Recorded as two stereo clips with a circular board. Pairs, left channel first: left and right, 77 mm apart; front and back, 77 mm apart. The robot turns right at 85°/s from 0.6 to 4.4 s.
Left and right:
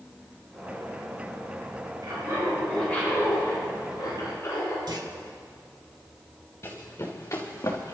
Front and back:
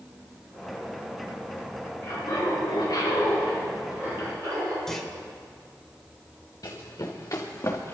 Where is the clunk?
85° right, 1.4 m.